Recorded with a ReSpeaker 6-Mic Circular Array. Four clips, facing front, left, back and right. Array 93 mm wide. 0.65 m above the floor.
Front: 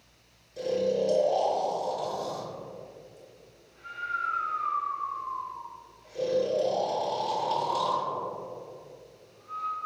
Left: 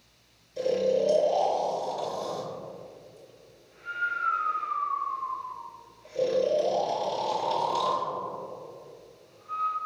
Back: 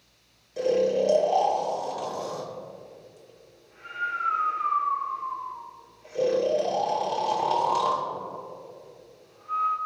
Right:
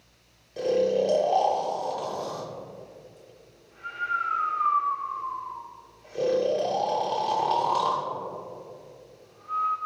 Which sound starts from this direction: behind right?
Snoring, at 0.6 s.